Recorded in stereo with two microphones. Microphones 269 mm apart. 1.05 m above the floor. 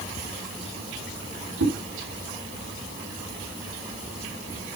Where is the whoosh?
80° right, 7.5 m.